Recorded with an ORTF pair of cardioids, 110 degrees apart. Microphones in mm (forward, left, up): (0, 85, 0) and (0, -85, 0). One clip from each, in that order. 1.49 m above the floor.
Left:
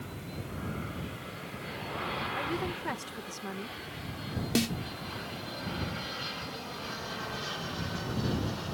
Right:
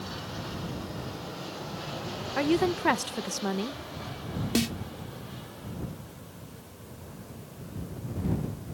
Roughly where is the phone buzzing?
I don't hear a phone buzzing.